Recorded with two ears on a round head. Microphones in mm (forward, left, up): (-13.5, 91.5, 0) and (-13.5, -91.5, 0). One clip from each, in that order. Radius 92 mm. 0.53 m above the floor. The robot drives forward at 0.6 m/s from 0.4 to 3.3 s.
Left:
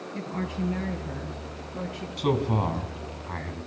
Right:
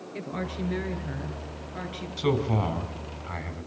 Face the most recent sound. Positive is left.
turn(degrees=-15)  # may be behind; listen again after turning